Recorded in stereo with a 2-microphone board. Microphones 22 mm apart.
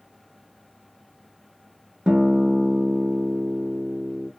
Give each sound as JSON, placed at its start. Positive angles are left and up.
{"t": 2.1, "sound": "a guitar", "side_deg": -35, "distance_m": 0.7}